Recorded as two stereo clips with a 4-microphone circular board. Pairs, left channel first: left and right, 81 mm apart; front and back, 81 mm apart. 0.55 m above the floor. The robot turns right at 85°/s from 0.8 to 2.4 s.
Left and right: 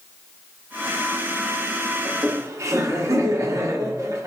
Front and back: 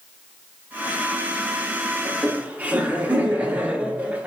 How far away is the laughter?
About 0.9 m.